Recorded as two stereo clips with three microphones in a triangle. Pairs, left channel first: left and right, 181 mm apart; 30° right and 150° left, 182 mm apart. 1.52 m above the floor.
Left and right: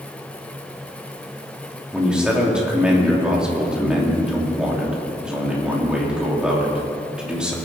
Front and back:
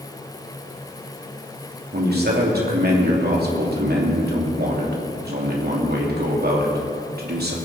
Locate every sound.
1.9 s a man speaking: 175° right, 2.5 m